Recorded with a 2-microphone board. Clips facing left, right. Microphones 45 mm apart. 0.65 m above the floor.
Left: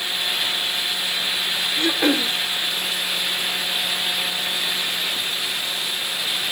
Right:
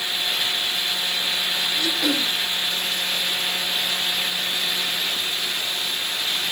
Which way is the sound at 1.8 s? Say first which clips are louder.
Left 5 dB; 35° left (ahead or behind).